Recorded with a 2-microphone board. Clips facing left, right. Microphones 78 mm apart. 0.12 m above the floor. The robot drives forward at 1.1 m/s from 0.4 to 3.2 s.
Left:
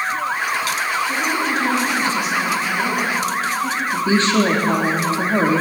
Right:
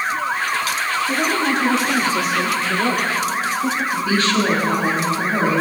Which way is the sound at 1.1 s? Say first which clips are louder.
Right 1 dB; 70° right (ahead or behind).